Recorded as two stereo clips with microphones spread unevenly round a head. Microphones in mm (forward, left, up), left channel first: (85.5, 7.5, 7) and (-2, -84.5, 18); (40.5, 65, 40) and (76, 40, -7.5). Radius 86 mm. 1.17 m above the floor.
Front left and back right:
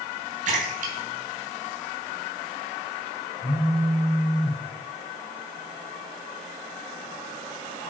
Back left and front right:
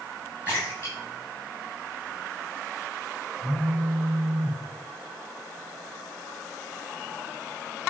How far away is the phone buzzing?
About 2 m.